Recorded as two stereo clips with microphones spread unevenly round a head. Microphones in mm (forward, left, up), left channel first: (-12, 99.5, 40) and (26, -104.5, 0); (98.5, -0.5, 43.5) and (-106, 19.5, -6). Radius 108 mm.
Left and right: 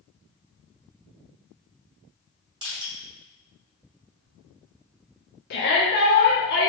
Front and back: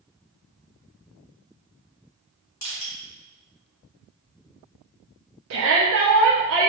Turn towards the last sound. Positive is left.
turn(degrees=145)